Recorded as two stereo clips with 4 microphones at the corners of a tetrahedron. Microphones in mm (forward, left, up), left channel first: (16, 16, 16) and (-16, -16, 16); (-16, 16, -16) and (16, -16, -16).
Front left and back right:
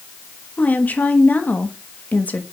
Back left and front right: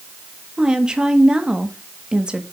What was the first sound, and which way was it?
A woman speaking, 15° left.